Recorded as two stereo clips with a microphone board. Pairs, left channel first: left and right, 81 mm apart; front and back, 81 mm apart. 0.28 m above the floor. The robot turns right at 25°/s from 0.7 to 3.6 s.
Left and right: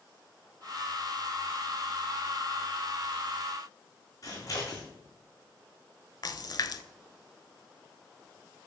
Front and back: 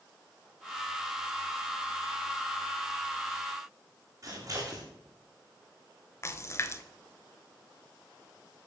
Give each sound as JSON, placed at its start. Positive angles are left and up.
{"t": 4.2, "sound": "scissors", "azimuth_deg": 135, "distance_m": 4.5}
{"t": 6.2, "sound": "a splash", "azimuth_deg": 55, "distance_m": 0.7}